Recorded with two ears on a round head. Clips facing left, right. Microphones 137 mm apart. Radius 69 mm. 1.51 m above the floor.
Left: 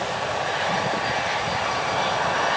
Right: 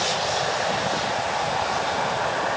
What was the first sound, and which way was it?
Only background noise.